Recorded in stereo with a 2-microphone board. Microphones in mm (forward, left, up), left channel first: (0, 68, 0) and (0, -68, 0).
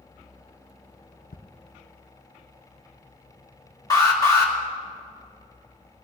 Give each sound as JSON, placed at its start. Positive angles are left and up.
{"t": 1.3, "sound": "ticking", "side_deg": 85, "distance_m": 0.8}
{"t": 3.9, "sound": "an alarm", "side_deg": 25, "distance_m": 2.5}